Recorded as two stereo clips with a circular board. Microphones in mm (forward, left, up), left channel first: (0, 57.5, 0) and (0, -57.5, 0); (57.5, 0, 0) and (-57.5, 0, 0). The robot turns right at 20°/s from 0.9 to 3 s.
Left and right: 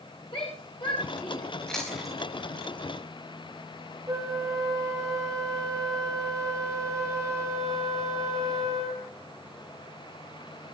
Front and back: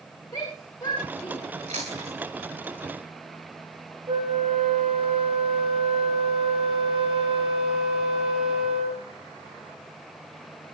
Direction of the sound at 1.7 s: 175° left.